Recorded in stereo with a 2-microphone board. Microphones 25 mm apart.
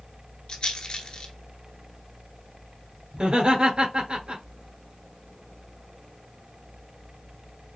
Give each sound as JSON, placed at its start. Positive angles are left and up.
{"t": 0.5, "sound": "a rattle", "side_deg": 35, "distance_m": 1.2}
{"t": 3.1, "sound": "laughter", "side_deg": -40, "distance_m": 1.9}